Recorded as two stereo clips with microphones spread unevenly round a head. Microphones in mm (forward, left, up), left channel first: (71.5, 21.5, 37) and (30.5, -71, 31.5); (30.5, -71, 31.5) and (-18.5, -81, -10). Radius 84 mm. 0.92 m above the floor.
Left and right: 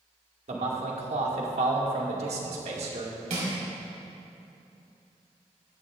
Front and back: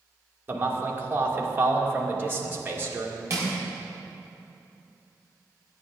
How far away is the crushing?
About 4.5 m.